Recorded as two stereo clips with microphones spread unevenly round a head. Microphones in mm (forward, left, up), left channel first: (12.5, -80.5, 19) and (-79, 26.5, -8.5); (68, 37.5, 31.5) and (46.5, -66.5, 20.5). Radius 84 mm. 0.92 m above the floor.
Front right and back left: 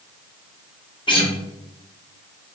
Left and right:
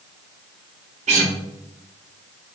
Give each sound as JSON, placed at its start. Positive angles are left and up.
{"t": 1.1, "sound": "a guitar", "azimuth_deg": -105, "distance_m": 1.2}